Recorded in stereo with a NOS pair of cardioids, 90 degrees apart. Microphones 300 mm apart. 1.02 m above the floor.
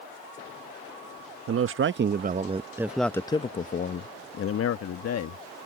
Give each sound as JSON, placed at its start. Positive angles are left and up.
{"t": 1.5, "sound": "a man speaking", "azimuth_deg": -50}